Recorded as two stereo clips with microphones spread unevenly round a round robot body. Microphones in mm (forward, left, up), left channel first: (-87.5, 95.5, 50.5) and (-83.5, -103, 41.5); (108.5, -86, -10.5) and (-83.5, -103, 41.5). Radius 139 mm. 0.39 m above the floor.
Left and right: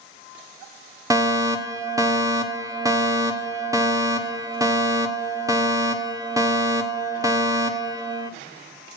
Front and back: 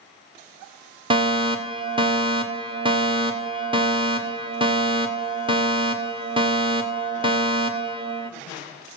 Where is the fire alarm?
115° right, 2.0 m.